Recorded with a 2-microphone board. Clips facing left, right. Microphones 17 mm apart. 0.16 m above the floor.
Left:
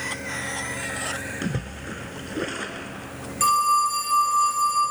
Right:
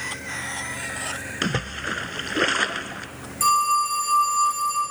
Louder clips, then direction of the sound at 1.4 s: Right 5 dB; 45° right (ahead or behind).